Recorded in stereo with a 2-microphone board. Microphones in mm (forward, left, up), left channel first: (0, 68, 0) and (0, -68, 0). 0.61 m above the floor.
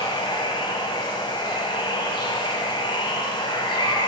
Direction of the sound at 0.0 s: 35° left (ahead or behind).